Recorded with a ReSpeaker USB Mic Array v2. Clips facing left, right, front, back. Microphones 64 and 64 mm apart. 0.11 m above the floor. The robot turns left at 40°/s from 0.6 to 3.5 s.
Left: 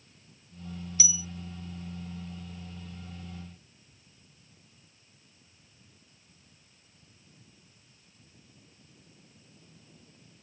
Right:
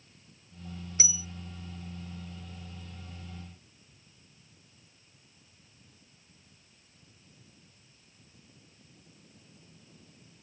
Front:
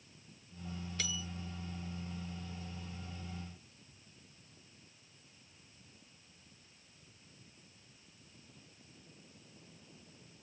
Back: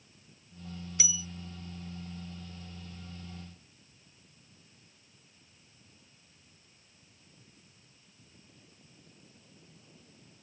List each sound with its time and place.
1.0 s a bell: 100° right; by 1.2 s 110° right